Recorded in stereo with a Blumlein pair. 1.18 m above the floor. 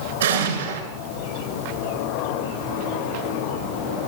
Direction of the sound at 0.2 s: 65° right.